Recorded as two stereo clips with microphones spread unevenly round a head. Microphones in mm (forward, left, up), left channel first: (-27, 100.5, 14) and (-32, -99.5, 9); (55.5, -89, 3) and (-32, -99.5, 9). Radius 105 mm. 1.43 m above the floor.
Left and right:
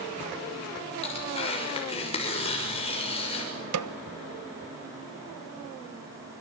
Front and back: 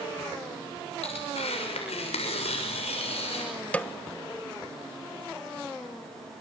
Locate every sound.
1.0 s tearing paper: 25° left, 6 m
3.7 s a snare drum: 70° right, 1.2 m